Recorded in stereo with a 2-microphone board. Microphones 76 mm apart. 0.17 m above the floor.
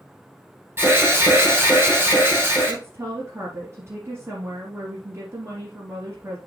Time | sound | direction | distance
0.8 | an alarm | 30° right (ahead or behind) | 4.5 m
2.7 | a woman speaking | 40° right (ahead or behind) | 3 m